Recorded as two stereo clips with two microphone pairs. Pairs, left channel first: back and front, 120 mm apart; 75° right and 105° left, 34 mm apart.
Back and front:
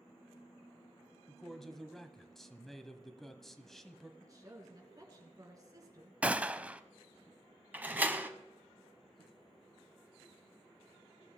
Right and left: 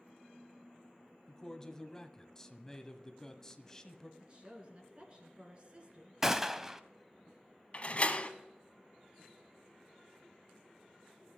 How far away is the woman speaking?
About 3 m.